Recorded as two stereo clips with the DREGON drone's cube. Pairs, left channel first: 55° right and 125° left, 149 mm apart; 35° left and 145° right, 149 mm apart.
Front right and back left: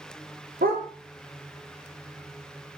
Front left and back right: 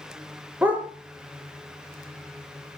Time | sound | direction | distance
0.6 | a dog barking | 135° left | 5 m